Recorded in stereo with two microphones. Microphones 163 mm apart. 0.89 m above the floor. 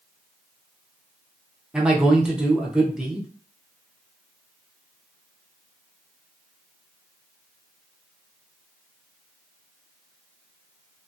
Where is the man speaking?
5° right (ahead or behind), 0.6 m.